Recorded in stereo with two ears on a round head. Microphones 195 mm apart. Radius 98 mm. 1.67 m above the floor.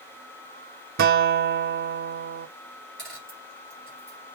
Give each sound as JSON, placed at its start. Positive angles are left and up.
{"t": 1.0, "sound": "a guitar", "side_deg": -45, "distance_m": 0.5}
{"t": 3.0, "sound": "a dropped coin", "side_deg": 5, "distance_m": 3.0}